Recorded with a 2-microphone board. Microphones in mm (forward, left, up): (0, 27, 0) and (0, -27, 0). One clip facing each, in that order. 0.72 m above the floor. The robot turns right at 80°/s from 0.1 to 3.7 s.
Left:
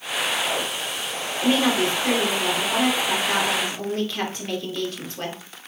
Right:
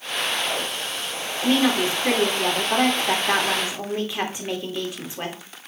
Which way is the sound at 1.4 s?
160° left.